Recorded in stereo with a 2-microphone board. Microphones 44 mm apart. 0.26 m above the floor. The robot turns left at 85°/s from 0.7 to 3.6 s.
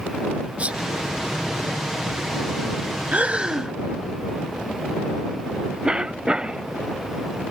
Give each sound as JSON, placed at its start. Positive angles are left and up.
{"t": 0.6, "sound": "a sneeze", "side_deg": -25}
{"t": 3.1, "sound": "breathing", "azimuth_deg": -115}
{"t": 5.8, "sound": "a cough", "side_deg": -25}